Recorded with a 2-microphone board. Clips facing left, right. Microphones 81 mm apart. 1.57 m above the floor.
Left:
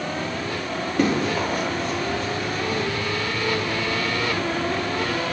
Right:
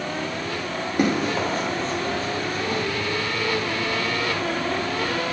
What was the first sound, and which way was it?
Running footsteps, 15° right (ahead or behind).